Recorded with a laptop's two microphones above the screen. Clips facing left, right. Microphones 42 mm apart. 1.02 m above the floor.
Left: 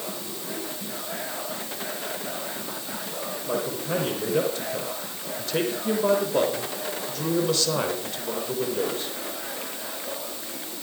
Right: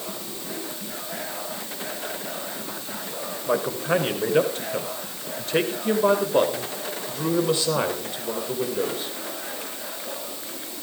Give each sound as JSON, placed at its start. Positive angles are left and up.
{"t": 3.5, "sound": "a man speaking", "side_deg": -50, "distance_m": 4.5}